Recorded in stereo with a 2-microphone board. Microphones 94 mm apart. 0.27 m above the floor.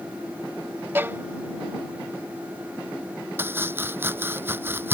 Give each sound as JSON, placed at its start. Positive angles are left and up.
{"t": 0.9, "sound": "a violin", "side_deg": -25}
{"t": 3.4, "sound": "chopping", "side_deg": -25}